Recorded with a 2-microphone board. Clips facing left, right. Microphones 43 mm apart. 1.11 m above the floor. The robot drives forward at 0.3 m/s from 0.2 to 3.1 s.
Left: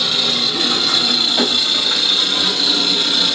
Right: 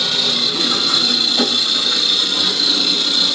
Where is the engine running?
25° left (ahead or behind), 2.5 m; by 3.4 s 35° left (ahead or behind), 1.8 m.